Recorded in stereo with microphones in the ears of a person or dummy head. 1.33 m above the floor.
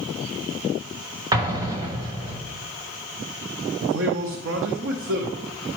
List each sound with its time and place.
1.3 s an explosion: 20° right (ahead or behind), 1.0 m
3.8 s a man speaking: 70° right (ahead or behind), 1.0 m